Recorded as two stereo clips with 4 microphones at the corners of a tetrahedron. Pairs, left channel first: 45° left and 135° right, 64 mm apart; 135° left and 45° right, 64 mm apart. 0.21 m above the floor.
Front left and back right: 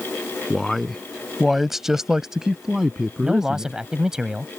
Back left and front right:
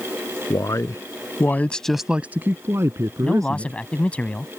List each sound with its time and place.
0.5 s a man speaking: 130° left; by 3.8 s 55° right
3.2 s a man speaking: 160° left